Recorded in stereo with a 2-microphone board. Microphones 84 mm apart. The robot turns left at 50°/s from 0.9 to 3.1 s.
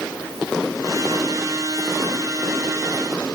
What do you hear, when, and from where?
Only background noise.